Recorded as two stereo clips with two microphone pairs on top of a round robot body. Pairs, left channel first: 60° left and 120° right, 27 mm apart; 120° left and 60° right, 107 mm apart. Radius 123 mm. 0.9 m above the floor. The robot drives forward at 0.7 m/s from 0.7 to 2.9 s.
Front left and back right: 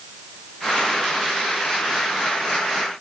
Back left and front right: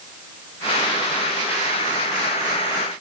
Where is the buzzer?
No buzzer in this recording.